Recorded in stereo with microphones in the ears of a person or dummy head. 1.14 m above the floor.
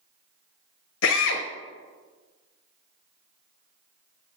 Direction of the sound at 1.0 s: 85° left.